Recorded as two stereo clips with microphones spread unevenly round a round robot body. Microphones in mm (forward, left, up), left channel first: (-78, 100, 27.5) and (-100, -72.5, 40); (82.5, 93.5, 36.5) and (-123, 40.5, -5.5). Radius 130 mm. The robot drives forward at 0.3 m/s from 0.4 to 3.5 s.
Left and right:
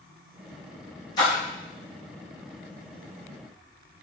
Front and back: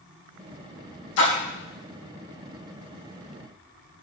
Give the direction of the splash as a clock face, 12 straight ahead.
12 o'clock.